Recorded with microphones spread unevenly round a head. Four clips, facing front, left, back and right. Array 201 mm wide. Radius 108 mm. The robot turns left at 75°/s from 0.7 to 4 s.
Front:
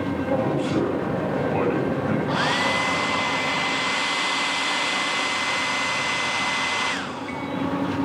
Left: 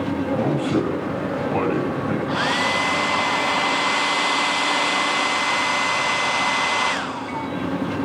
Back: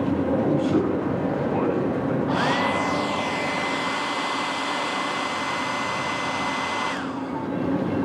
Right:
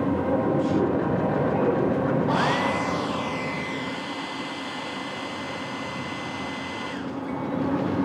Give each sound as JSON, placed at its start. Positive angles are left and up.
{"t": 0.3, "sound": "a man speaking", "azimuth_deg": 120, "distance_m": 9.5}
{"t": 2.3, "sound": "a hair dryer", "azimuth_deg": -135, "distance_m": 0.8}